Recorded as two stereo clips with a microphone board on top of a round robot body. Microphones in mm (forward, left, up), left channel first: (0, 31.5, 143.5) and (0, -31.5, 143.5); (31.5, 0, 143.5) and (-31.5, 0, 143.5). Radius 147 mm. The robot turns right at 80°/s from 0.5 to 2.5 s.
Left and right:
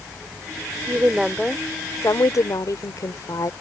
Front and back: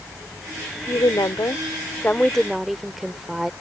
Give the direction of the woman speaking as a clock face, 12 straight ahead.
1 o'clock.